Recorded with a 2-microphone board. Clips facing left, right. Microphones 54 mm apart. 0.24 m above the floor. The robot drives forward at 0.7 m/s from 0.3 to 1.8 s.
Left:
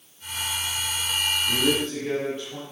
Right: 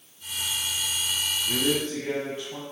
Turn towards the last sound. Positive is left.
turn(degrees=-20)  # may be behind; listen again after turning